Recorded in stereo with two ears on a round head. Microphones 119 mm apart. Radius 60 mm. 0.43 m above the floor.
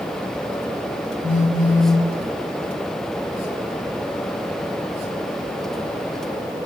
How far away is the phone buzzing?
About 1.2 m.